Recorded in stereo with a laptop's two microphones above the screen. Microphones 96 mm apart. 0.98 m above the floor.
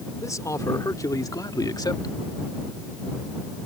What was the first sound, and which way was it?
A man speaking, 35° left (ahead or behind).